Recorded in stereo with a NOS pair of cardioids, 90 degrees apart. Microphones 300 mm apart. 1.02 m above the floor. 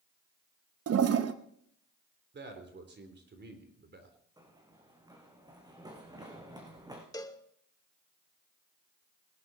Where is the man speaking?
35° right, 3.5 m.